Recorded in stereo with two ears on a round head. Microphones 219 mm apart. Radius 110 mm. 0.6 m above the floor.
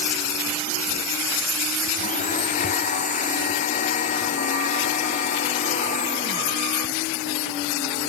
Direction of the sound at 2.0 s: 30° left (ahead or behind).